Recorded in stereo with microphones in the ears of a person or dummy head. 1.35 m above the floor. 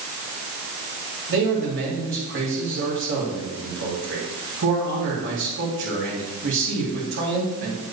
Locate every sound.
1.3 s a man speaking: 60° right (ahead or behind), 3 m